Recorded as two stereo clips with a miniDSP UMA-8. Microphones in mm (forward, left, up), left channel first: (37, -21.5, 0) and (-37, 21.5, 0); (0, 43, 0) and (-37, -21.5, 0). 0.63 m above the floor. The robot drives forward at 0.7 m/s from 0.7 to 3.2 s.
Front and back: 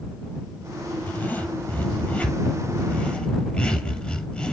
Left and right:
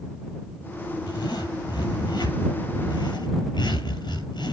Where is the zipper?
40° left, 6.5 m; by 4.5 s 50° left, 5 m.